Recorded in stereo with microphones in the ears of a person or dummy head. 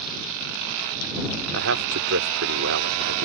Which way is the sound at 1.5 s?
65° right (ahead or behind).